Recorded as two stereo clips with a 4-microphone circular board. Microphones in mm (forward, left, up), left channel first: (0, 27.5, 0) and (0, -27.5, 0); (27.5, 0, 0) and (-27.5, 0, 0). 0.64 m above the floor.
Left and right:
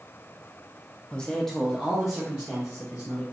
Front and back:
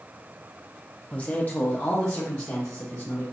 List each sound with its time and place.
1.1 s a man speaking: 45° left, 0.6 m; by 3.2 s 25° right, 1.5 m